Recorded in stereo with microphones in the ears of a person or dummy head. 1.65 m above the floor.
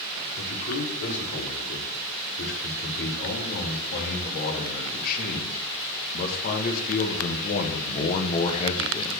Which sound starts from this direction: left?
A man speaking, at 0.4 s.